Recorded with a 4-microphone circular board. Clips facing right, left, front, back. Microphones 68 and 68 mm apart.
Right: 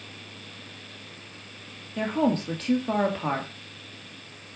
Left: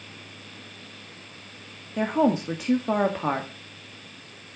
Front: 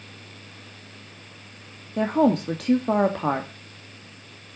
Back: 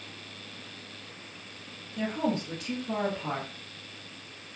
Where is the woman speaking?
15° left, 1.2 m.